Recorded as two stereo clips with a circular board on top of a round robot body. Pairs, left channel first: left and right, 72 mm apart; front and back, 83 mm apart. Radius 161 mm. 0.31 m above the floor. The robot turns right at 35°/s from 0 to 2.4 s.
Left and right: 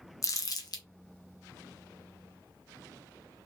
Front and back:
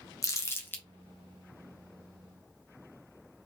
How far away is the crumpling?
About 1.0 m.